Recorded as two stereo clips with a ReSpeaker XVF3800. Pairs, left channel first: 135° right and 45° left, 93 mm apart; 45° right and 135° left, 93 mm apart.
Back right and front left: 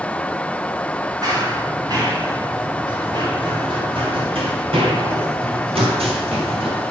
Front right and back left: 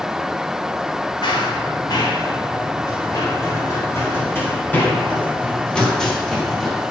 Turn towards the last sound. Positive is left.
turn(degrees=50)